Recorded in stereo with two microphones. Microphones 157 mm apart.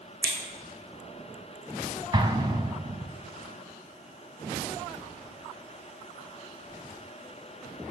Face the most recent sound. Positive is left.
turn(degrees=-30)  # may be behind; listen again after turning